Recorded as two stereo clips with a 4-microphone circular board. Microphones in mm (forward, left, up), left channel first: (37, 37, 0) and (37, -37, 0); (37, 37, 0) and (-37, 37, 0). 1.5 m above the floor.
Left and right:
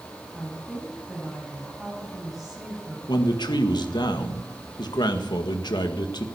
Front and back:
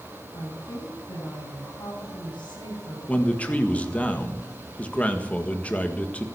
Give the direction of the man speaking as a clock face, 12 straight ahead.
10 o'clock.